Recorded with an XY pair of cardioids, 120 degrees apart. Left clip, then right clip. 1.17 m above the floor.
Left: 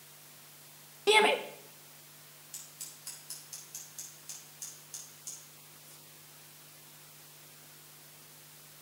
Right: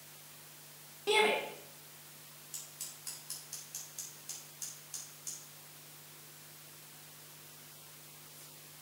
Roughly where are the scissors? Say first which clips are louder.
Right 1 dB; ahead.